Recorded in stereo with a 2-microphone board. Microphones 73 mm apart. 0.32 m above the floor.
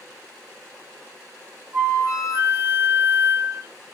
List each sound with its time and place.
1.7 s a flute: 40° right (ahead or behind), 1.1 m